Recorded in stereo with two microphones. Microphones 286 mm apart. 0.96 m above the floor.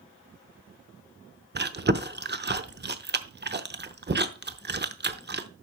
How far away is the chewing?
About 0.8 m.